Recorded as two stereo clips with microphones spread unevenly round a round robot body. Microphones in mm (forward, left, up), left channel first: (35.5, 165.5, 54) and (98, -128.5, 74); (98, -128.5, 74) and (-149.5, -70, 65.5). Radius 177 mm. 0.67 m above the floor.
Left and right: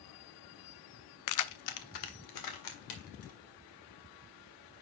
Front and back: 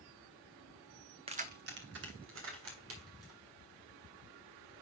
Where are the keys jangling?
100° left, 0.5 m; by 3.4 s 125° left, 2.5 m.